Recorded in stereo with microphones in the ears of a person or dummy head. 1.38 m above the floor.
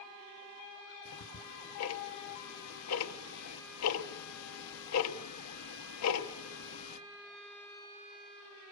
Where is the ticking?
85° left, 1.0 m.